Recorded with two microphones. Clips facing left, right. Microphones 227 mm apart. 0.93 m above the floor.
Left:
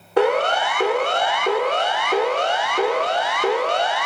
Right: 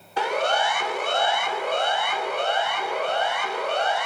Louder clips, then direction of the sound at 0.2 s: Left 7 dB; 60° left (ahead or behind).